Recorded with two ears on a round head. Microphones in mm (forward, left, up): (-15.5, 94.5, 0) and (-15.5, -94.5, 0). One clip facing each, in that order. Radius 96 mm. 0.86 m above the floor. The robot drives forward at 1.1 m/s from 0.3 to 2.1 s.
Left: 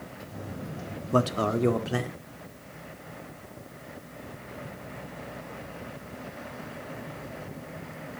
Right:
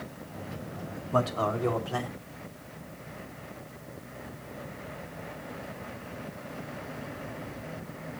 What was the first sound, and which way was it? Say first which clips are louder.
A man speaking: left 3 dB; 40° left (ahead or behind).